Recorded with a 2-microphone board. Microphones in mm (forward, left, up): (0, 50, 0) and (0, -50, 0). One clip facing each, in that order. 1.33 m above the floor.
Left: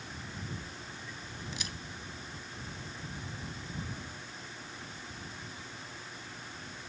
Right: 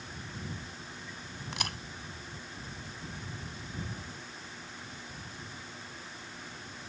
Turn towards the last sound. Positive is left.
turn(degrees=-60)  # may be behind; listen again after turning